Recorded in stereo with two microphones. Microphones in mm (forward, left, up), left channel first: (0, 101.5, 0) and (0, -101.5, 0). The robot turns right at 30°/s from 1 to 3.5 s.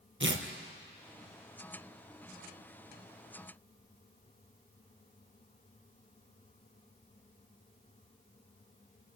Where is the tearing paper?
75° right (ahead or behind), 2 m.